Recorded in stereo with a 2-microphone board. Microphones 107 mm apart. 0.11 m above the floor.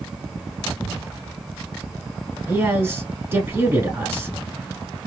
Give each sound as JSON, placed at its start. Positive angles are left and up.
{"t": 2.5, "sound": "a man speaking", "side_deg": -25, "distance_m": 1.2}